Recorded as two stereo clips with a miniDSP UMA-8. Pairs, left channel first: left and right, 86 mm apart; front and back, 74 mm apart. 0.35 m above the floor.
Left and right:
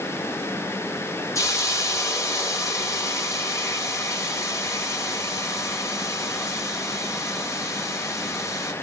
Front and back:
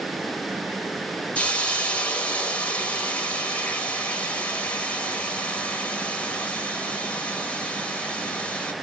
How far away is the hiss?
About 1.3 m.